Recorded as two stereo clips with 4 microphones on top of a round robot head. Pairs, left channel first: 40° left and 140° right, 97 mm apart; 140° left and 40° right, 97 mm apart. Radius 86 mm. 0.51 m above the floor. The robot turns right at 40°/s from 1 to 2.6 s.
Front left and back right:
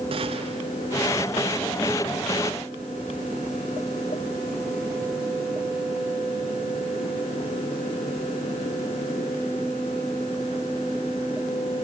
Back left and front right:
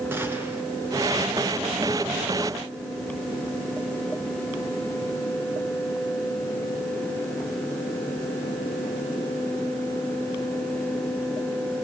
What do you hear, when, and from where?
0.1 s a gunshot: 110° right, 5 m